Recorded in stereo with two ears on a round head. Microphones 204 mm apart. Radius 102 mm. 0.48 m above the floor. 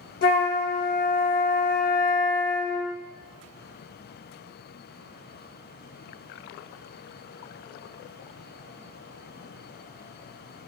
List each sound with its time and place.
0.2 s a flute: 40° left (ahead or behind), 0.6 m